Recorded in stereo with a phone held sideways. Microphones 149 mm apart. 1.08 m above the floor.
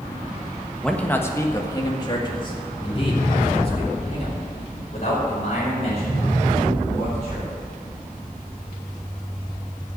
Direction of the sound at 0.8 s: 5° left (ahead or behind).